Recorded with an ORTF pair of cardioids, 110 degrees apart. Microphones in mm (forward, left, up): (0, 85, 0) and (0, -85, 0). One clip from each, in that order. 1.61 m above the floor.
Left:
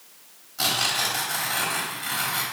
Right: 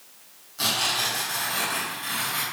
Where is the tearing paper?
20° left, 4 m.